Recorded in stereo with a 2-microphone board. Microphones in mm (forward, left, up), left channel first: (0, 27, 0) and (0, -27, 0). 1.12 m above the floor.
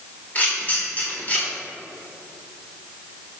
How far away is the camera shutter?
About 3 m.